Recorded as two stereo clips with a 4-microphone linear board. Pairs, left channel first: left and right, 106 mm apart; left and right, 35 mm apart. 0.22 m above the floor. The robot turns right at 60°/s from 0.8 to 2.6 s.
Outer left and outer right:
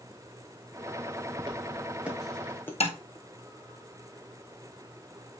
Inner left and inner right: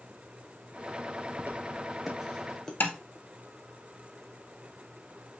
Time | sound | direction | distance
1.4 | footsteps | 50° right (ahead or behind) | 2.5 m
2.8 | tapping | 75° left (ahead or behind) | 1.8 m